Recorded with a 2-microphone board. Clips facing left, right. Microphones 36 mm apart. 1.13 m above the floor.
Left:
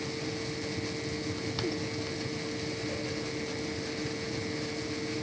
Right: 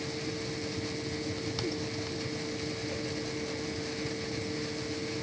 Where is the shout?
No shout in this recording.